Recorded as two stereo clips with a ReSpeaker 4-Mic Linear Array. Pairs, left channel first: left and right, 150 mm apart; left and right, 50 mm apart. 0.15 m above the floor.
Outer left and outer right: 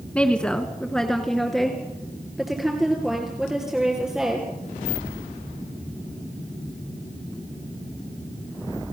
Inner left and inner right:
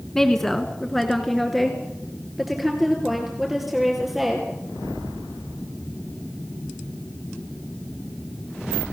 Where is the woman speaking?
10° left (ahead or behind), 1.5 m; by 4.5 s 5° right (ahead or behind), 3.5 m.